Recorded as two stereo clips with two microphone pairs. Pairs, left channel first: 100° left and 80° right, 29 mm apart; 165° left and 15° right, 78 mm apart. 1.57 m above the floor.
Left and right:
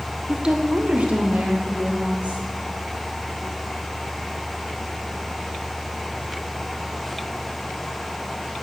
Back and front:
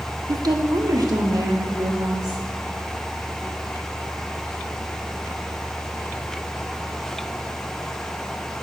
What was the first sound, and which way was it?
A woman speaking, 20° right.